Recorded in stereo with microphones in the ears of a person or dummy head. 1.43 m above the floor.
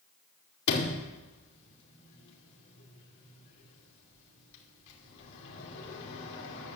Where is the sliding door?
65° left (ahead or behind), 2.5 m.